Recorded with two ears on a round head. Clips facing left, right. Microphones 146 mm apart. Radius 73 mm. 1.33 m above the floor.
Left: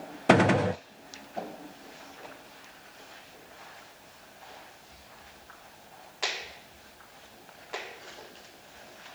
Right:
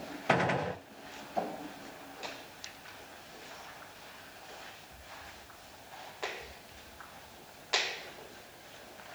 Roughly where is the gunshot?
Left.